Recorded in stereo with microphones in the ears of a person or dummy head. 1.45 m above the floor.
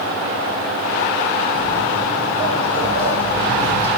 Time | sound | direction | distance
1.6 | footsteps | 45° right (ahead or behind) | 2.5 m